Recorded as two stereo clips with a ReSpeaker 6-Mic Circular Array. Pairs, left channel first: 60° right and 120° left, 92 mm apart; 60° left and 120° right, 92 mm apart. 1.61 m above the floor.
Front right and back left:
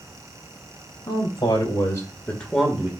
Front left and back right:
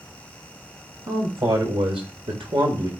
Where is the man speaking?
90° right, 2.5 m; by 2.9 s 165° right, 1.6 m.